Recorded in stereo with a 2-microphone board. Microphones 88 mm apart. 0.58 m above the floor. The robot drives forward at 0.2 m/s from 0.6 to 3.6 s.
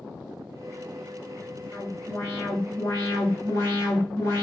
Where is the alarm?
40° left (ahead or behind), 1.5 m.